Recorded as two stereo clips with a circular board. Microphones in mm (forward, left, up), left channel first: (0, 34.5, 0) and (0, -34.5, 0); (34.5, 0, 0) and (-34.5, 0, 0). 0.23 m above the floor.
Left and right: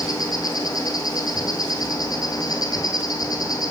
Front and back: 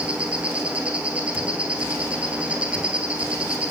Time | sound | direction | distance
0.0 | an insect | 105° left | 1.5 m